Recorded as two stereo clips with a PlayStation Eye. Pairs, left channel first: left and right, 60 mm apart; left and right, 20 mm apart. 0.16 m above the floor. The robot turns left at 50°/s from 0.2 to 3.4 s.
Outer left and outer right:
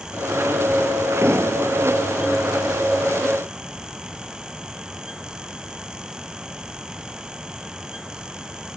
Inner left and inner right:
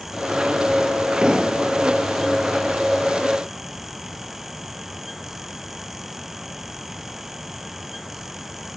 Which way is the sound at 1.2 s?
115° right.